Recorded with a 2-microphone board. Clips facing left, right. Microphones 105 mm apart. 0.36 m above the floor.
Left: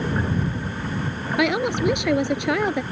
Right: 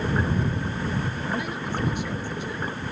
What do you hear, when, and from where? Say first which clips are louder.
1.4 s a woman speaking: left 8 dB; 80° left